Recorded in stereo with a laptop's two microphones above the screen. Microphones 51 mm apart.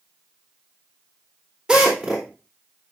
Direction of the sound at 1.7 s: 15° right (ahead or behind).